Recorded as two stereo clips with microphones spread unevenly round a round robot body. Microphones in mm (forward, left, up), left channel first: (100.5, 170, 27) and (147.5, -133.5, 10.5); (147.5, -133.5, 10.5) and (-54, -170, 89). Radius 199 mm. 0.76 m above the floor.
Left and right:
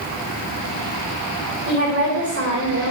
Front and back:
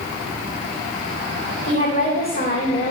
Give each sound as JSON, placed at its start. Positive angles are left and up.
{"t": 1.7, "sound": "a woman speaking", "azimuth_deg": -30, "distance_m": 3.5}